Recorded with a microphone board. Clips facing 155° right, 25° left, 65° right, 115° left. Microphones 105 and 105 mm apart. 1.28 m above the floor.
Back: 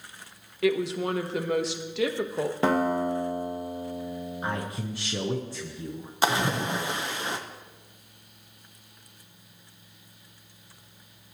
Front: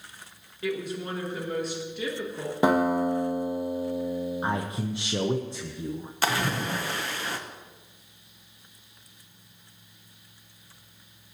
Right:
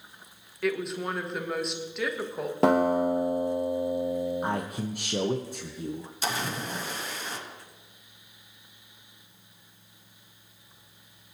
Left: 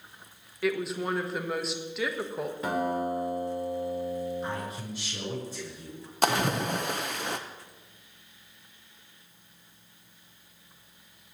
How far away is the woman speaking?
About 1.2 m.